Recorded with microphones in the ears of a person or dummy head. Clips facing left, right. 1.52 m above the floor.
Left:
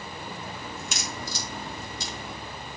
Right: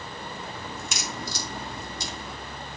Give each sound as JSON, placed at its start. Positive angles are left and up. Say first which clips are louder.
{"t": 0.8, "sound": "a crack", "louder": "right 1 dB", "side_deg": -80, "distance_m": 3.0}